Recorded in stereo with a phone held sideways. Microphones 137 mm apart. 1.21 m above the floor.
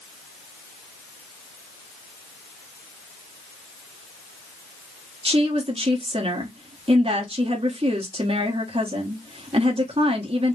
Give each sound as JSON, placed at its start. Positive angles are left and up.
{"t": 5.2, "sound": "a woman speaking", "side_deg": -45, "distance_m": 1.4}